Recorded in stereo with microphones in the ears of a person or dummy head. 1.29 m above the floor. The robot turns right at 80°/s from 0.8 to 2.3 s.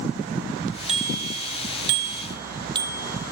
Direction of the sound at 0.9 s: 40° right (ahead or behind).